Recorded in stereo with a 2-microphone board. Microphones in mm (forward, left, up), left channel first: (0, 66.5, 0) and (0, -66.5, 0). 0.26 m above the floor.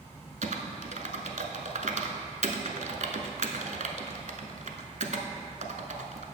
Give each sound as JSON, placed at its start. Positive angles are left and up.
{"t": 0.4, "sound": "typing on a keyboard", "side_deg": -75, "distance_m": 0.7}